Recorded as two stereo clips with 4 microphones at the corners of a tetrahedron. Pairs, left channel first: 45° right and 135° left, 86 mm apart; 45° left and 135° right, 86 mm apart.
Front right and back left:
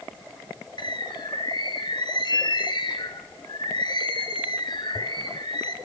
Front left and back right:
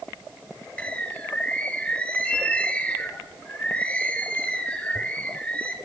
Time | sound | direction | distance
0.8 | a bird | 30° right | 1.2 m